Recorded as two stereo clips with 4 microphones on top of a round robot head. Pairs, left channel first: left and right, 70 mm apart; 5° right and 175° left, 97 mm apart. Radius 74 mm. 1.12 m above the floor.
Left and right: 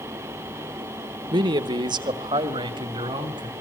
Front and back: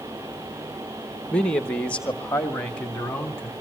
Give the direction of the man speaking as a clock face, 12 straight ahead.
3 o'clock.